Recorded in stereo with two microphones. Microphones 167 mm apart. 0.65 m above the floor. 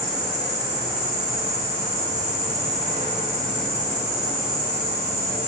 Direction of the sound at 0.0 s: 40° right (ahead or behind).